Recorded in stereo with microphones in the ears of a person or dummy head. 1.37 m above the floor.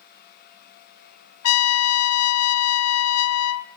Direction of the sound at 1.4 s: 80° left.